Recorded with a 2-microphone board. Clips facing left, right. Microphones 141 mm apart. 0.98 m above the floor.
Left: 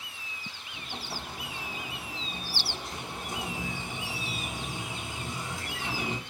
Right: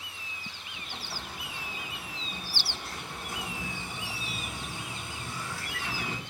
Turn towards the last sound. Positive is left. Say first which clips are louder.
# left 3 dB
turn(degrees=20)  # may be behind; listen again after turning